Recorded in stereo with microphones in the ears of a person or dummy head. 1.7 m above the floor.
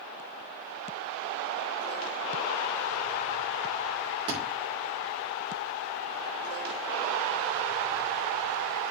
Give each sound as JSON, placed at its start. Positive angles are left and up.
{"t": 4.3, "sound": "a thud", "side_deg": -25, "distance_m": 3.0}